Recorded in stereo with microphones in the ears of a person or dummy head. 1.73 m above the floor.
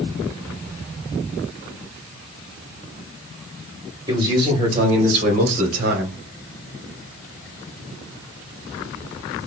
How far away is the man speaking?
About 2 m.